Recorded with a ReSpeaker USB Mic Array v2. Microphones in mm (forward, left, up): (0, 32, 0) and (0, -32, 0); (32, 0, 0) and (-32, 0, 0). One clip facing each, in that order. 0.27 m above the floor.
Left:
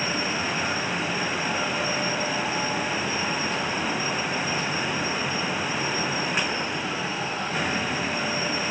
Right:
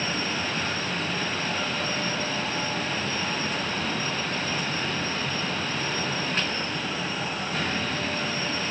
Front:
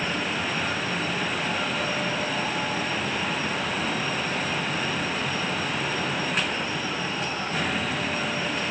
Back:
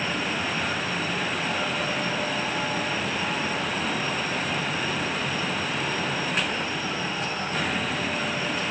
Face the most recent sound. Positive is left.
No sound to turn to.